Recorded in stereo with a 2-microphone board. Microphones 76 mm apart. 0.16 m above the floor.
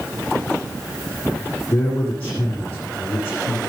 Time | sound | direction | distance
1.7 | a man speaking | 20° left (ahead or behind) | 8 m